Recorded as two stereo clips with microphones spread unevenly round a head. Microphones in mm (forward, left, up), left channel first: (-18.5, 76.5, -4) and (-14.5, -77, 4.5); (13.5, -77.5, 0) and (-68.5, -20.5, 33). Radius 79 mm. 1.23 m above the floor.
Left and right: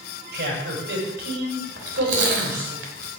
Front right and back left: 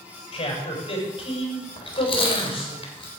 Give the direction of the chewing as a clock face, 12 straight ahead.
2 o'clock.